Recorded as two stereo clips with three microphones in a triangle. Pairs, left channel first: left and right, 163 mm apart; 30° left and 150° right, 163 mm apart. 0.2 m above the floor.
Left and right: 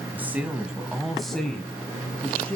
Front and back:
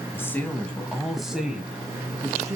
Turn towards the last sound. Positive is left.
turn(degrees=155)